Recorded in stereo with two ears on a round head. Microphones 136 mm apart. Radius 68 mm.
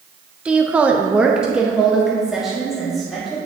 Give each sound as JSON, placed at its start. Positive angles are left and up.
{"t": 0.5, "sound": "a woman speaking", "side_deg": -5, "distance_m": 0.7}